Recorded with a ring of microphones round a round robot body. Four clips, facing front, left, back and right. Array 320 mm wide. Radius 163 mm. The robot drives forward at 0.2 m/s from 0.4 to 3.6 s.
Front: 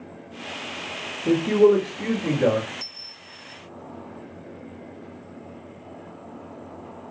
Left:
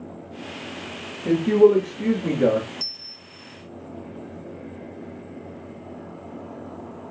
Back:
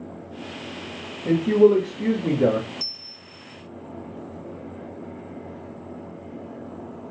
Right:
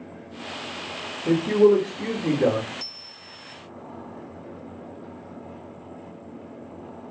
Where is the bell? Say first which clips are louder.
Even, back 1 dB; 145° left, 1.0 m; by 3.5 s 150° left, 1.1 m.